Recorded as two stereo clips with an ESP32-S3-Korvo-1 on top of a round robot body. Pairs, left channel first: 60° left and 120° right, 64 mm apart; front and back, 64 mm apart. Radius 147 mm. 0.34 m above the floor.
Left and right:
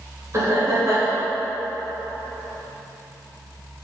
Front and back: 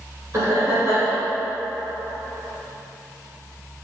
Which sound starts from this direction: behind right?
Laughter, at 0.3 s.